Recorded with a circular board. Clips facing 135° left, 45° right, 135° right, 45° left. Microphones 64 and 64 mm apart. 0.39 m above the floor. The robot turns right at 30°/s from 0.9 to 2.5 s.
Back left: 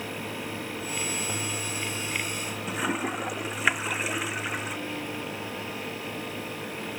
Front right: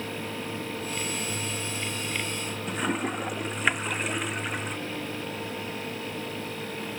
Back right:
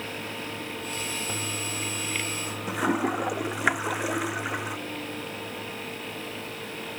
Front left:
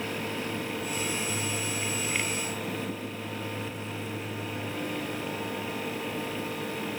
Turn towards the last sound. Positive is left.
turn(degrees=-140)